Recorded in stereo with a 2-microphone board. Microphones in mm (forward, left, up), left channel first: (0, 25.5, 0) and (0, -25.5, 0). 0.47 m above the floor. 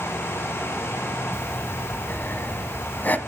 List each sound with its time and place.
1.3 s breathing: 35° left (ahead or behind), 1.0 m